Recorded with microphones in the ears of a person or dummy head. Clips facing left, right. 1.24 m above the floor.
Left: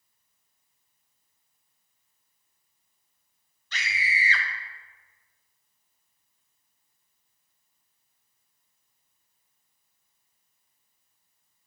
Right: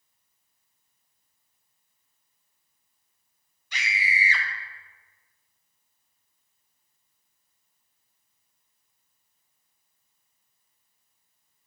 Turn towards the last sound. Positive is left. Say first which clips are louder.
# right 1 dB
turn(degrees=-10)  # may be behind; listen again after turning